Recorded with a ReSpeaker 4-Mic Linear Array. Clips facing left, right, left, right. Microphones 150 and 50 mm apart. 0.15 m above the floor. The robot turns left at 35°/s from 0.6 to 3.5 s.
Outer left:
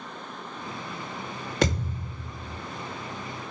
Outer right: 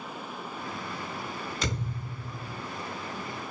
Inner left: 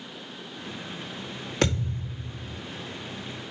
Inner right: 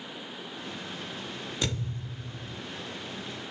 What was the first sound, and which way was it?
A thud, 75° left.